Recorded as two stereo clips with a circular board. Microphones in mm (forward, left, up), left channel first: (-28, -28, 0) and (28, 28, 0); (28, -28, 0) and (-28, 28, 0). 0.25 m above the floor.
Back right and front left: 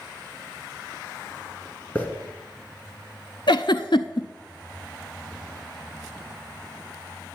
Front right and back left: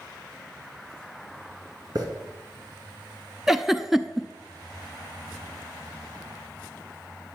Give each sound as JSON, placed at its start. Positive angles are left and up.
{"t": 1.9, "sound": "a hiss", "azimuth_deg": 155, "distance_m": 2.0}
{"t": 3.5, "sound": "a giggle", "azimuth_deg": -140, "distance_m": 0.6}